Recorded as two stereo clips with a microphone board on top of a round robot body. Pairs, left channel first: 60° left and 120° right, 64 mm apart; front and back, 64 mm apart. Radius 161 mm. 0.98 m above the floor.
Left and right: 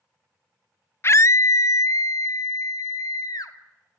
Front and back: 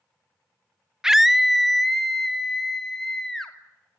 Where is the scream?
100° left, 0.5 m; by 3.5 s 85° left, 2.5 m.